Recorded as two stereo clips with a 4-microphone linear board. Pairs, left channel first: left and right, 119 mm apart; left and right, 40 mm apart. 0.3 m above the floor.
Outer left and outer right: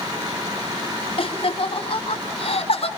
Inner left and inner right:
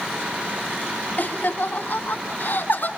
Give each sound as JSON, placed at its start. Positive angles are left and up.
{"t": 1.2, "sound": "laughter", "side_deg": 45, "distance_m": 2.5}